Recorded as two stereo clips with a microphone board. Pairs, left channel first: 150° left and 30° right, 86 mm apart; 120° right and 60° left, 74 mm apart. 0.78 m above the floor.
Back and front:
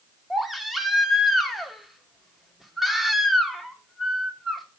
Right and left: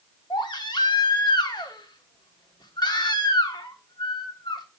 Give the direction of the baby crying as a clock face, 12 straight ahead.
4 o'clock.